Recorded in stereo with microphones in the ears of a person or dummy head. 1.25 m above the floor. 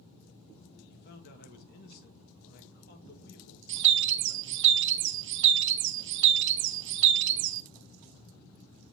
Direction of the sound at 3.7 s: 65° right (ahead or behind).